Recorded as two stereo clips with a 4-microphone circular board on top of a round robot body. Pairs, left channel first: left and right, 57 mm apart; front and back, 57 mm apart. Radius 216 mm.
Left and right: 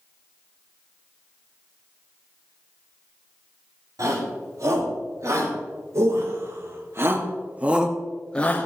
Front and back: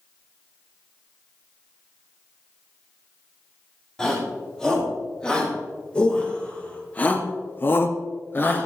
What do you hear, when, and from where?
4.0 s a shout: 80° right, 6.5 m; by 8.7 s 50° left, 1.8 m